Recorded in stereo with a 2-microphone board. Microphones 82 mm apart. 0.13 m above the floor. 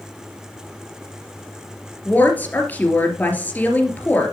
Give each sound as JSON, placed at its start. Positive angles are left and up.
{"t": 2.0, "sound": "a woman speaking", "side_deg": 20, "distance_m": 2.5}